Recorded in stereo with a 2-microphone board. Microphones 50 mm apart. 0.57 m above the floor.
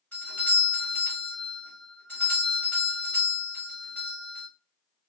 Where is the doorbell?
30° left (ahead or behind), 1.4 m.